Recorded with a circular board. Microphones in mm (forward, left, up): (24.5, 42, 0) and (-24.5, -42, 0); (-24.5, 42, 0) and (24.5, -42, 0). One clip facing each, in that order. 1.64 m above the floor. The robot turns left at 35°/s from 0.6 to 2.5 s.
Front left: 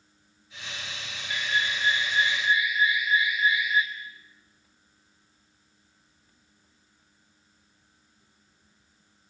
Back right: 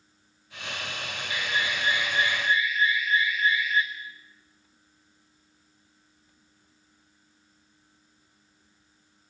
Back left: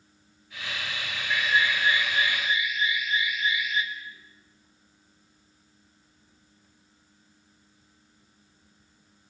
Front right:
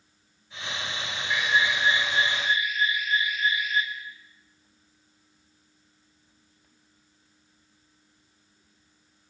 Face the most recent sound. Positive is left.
turn(degrees=-15)